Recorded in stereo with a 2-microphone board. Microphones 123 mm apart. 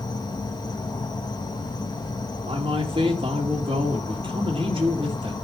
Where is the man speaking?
45° right (ahead or behind), 2.5 m.